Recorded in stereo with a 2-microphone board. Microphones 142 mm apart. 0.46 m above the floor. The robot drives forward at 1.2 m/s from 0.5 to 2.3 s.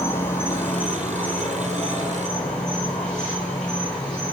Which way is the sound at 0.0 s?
15° left (ahead or behind).